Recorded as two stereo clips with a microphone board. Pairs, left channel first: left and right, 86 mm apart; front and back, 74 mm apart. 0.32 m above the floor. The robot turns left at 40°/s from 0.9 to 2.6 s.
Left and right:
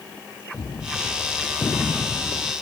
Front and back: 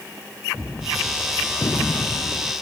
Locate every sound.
0.5 s a gunshot: 70° left; by 2.5 s 5° left